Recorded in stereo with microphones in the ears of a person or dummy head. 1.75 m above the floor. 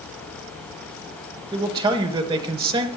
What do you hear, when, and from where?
1.5 s a man speaking: 25° right (ahead or behind), 1.3 m